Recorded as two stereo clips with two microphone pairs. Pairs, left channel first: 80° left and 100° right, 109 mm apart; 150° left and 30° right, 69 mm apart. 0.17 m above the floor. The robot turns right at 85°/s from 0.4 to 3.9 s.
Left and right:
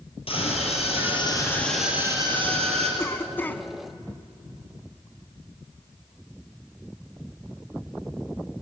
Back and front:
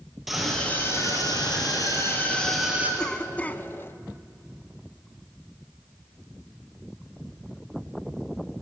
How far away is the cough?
About 1.2 m.